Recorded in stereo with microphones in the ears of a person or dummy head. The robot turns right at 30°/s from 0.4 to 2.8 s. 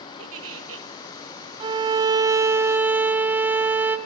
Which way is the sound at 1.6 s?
50° right.